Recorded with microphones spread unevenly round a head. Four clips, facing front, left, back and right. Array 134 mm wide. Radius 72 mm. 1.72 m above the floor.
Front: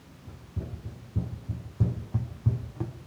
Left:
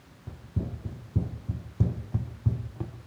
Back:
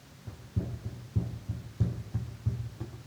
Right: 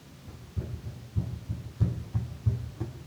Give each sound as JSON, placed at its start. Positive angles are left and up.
{"t": 0.3, "sound": "running footsteps", "azimuth_deg": 105, "distance_m": 3.5}